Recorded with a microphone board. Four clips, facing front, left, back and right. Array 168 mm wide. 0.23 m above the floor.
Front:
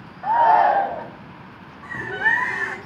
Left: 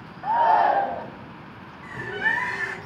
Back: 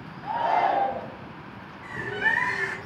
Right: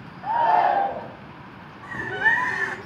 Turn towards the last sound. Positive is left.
turn(degrees=-45)